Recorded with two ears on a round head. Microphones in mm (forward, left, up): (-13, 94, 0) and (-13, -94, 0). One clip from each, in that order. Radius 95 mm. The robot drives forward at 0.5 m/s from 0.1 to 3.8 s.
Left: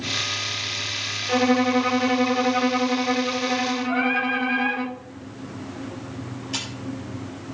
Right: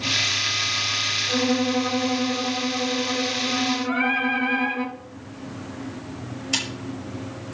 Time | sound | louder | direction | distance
1.3 | a violin | left 2 dB | 55° left (ahead or behind) | 0.7 m
3.9 | singing | left 1 dB | 15° right (ahead or behind) | 3.5 m
6.5 | a camera shutter | right 4 dB | 55° right (ahead or behind) | 5.5 m